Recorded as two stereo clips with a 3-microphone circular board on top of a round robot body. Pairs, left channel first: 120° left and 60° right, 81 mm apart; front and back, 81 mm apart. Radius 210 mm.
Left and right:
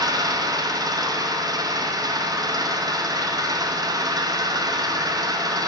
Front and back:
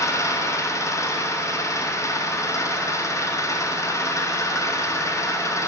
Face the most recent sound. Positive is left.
turn(degrees=-45)